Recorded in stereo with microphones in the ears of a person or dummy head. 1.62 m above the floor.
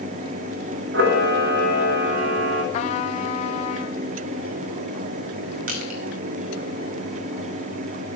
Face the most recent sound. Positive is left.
turn(degrees=-50)  # may be behind; listen again after turning